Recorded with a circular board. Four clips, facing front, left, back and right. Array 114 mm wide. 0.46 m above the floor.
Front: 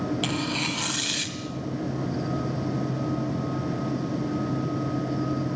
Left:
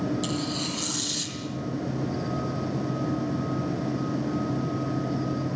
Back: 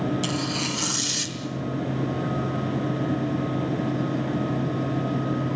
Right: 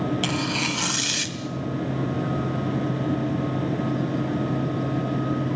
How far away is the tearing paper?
About 2 m.